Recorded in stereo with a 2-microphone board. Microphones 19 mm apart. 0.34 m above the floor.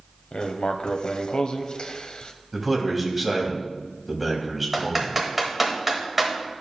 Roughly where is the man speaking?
Centre.